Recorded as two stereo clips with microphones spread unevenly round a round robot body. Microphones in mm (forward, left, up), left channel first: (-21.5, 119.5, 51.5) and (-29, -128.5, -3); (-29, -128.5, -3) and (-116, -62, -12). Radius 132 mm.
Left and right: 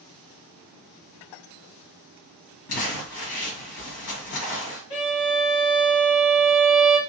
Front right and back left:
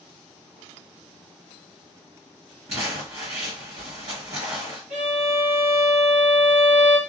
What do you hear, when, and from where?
2.7 s crumpling: 120° left, 1.3 m
4.9 s a violin: 130° left, 1.7 m